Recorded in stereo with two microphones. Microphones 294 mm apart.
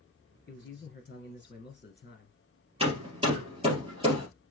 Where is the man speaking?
35° left (ahead or behind), 1.7 m.